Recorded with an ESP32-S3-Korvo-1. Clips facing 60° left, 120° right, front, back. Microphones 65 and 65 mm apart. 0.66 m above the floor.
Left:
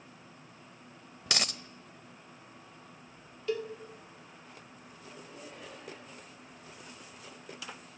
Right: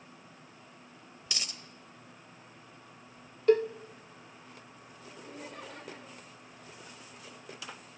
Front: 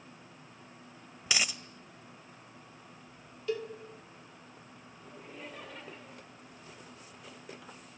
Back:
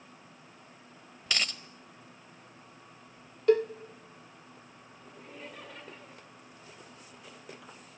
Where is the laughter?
90° right, 6 m.